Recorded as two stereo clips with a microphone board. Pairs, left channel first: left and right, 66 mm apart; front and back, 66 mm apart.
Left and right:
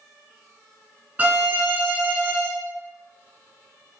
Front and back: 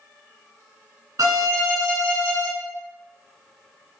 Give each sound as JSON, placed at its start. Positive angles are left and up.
{"t": 1.2, "sound": "a violin", "azimuth_deg": -150, "distance_m": 0.5}